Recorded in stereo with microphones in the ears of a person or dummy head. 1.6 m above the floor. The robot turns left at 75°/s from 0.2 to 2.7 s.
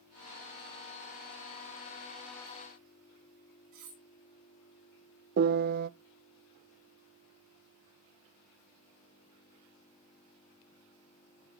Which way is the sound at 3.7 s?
45° right (ahead or behind).